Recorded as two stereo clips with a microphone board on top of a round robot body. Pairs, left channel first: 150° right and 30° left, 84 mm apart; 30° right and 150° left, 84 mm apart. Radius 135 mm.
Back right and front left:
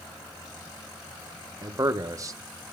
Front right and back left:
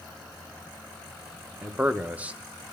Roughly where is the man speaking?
Left.